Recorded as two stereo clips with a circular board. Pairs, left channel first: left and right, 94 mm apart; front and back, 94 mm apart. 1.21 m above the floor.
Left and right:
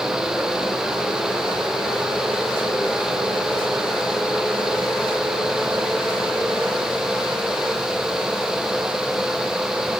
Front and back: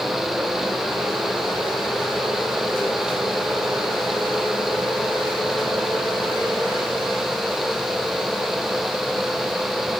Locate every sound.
Only background noise.